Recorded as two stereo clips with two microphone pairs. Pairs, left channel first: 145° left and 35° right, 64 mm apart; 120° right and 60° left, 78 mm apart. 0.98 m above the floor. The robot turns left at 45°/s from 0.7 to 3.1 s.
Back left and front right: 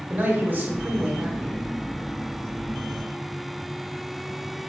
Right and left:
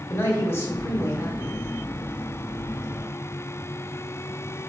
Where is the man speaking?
80° right, 1.0 m; by 1.6 s 120° right, 1.0 m.